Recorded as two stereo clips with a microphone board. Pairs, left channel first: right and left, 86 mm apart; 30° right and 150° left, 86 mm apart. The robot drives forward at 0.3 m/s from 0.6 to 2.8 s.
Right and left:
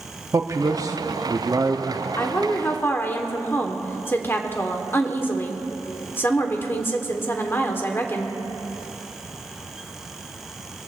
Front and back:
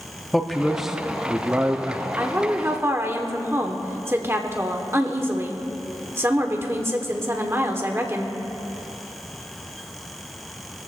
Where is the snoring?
No snoring in this recording.